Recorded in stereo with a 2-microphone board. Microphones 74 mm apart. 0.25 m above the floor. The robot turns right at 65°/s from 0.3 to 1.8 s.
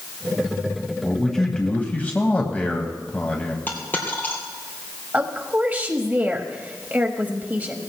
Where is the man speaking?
15° right, 1.3 m; by 3.6 s 35° left, 1.3 m.